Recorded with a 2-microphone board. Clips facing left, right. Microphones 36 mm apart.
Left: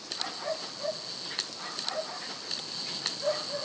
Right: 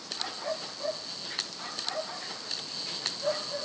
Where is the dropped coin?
No dropped coin in this recording.